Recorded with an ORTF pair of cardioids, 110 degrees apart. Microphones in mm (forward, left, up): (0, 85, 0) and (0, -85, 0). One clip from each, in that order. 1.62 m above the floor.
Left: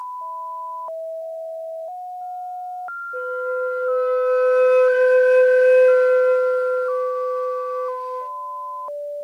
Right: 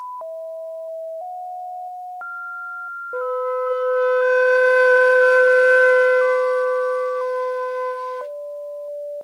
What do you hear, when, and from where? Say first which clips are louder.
3.1 s a flute: right 2 dB; 55° right, 0.6 m